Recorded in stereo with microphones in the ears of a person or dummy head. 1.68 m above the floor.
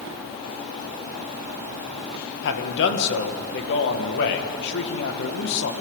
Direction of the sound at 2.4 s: 60° left (ahead or behind).